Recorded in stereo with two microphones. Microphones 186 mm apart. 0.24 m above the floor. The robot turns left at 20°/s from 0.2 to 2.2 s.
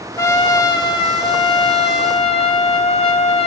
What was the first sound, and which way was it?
A trumpet, 150° left.